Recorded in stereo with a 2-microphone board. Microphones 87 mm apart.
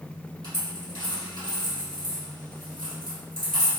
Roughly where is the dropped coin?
Right.